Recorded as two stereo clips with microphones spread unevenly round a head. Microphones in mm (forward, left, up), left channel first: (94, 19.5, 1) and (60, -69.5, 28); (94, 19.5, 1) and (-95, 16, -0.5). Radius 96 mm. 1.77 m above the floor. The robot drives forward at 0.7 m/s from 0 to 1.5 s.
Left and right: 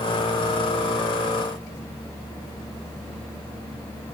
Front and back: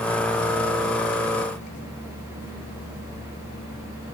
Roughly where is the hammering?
I don't hear hammering.